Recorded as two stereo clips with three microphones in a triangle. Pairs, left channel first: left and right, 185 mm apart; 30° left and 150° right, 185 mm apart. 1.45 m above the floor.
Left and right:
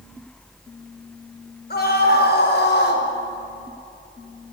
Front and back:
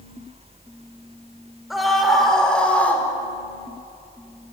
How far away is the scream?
About 5.5 m.